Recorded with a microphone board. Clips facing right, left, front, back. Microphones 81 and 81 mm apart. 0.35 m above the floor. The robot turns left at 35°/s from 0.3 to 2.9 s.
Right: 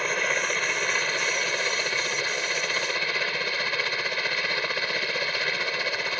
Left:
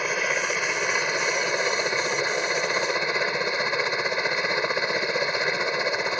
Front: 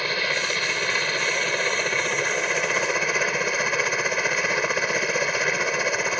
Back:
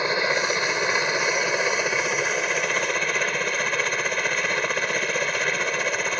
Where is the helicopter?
165° left; by 6.2 s 75° left.